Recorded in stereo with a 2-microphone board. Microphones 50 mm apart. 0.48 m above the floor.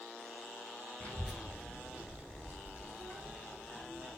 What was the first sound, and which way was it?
A child speaking, 15° left (ahead or behind).